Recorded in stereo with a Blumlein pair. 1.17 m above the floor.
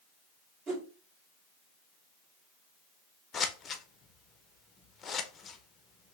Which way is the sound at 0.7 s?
30° right.